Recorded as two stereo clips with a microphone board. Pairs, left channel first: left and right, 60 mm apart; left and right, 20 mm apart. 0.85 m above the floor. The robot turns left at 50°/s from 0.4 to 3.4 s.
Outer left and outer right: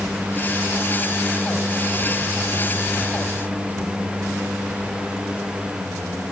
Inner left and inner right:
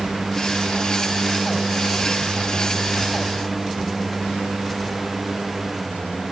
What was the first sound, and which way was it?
Only background noise.